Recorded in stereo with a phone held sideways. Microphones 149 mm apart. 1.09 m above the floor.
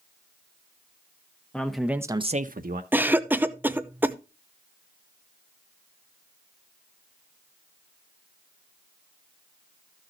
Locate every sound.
1.5 s a man speaking: 5° left (ahead or behind), 1.4 m; by 2.8 s 70° right (ahead or behind), 1.0 m
2.9 s a cough: 10° right (ahead or behind), 0.6 m